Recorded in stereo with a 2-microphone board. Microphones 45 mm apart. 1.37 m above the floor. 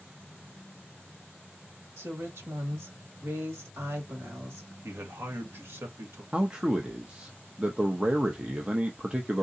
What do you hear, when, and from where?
2.0 s a woman speaking: 70° right (ahead or behind), 1.4 m
4.8 s a man speaking: 60° right (ahead or behind), 1.1 m
6.3 s a man speaking: 25° right (ahead or behind), 0.5 m